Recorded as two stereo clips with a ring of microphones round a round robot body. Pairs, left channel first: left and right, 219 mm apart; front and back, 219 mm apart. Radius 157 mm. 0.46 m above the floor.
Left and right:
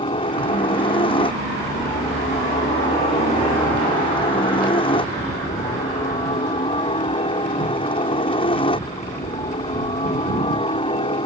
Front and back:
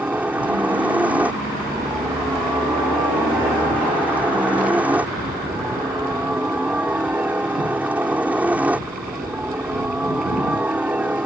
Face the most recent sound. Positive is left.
turn(degrees=105)